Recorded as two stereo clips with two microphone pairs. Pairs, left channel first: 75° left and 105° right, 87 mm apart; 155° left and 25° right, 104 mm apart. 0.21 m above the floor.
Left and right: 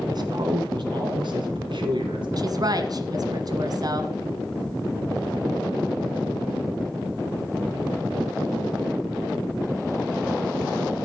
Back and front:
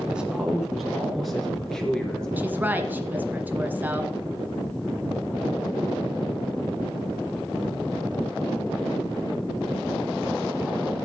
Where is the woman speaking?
90° right, 1.7 m.